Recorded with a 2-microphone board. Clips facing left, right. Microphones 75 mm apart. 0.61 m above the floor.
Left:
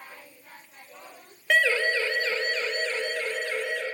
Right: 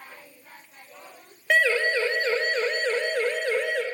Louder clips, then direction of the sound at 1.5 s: Right 1 dB; 10° right (ahead or behind).